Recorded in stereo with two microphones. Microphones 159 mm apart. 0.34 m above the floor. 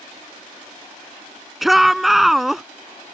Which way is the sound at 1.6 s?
Centre (ahead or behind).